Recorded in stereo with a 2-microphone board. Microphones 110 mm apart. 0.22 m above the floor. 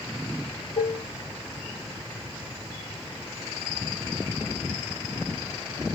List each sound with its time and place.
0.8 s dishes clattering: 80° left, 4.5 m